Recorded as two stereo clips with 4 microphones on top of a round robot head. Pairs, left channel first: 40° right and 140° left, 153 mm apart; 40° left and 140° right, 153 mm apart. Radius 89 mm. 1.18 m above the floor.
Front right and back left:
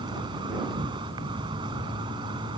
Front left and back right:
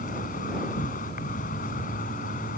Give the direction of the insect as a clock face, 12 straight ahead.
9 o'clock.